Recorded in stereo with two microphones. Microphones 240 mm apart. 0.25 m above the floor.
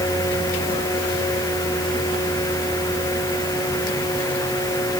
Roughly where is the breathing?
No breathing in this recording.